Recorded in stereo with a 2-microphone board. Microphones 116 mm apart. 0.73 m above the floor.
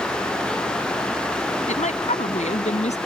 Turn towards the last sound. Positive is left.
turn(degrees=75)  # may be behind; listen again after turning